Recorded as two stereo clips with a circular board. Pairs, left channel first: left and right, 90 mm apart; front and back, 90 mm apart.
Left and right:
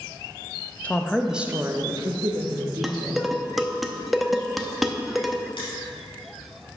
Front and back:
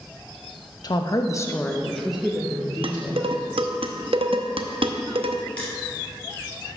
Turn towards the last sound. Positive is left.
turn(degrees=75)